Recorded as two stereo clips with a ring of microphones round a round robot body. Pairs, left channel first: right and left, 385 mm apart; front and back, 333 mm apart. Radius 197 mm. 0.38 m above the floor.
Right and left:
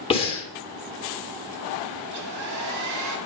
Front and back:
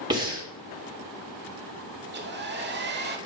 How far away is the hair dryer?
About 1.1 m.